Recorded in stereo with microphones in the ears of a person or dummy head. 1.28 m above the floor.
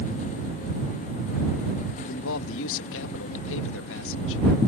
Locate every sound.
2.0 s a man speaking: 75° left (ahead or behind)